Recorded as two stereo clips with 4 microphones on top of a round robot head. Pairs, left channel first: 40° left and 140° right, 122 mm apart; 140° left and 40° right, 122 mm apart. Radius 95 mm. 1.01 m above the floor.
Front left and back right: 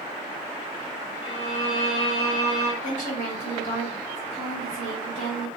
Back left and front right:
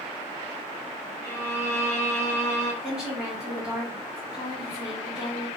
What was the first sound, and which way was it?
A violin, 75° left.